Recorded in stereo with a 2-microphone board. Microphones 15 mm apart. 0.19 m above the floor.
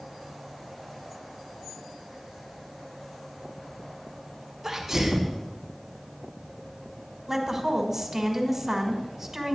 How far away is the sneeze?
About 1.2 m.